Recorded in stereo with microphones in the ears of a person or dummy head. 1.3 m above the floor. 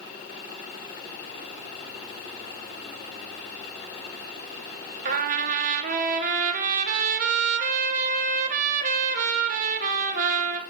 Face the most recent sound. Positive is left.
turn(degrees=-45)  # may be behind; listen again after turning